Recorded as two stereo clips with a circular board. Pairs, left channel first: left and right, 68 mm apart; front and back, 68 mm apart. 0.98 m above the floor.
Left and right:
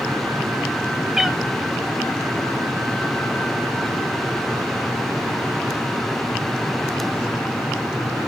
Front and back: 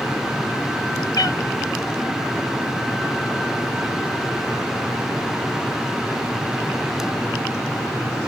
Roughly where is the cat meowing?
Ahead.